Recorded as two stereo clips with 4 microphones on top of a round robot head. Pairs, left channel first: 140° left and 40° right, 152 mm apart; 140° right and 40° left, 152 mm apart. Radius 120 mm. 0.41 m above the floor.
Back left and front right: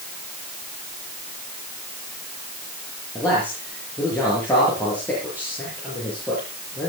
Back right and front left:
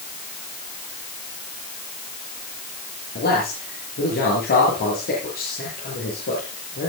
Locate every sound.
3.1 s a man speaking: 140° right, 9.5 m